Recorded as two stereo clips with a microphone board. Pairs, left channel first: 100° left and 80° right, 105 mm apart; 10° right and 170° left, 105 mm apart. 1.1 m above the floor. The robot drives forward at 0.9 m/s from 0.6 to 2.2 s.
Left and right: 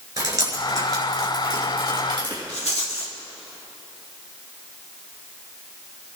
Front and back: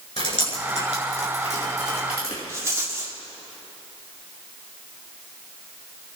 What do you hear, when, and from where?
0.2 s dripping: 25° right, 6.5 m; by 2.4 s 30° right, 5.5 m
2.5 s a rattle: 105° left, 1.9 m